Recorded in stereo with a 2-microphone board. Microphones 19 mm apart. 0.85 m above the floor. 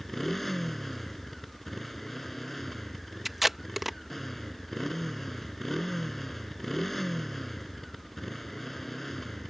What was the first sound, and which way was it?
A motorcycle, 10° left (ahead or behind).